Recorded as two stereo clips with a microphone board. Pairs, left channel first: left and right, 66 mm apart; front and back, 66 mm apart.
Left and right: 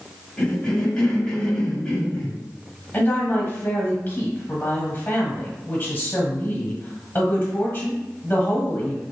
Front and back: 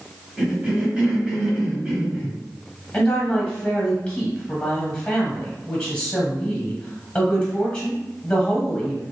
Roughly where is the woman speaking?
Ahead left.